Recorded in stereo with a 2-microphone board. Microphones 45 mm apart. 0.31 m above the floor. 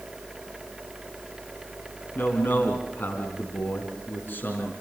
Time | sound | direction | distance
2.1 | a man speaking | 50° left (ahead or behind) | 3 m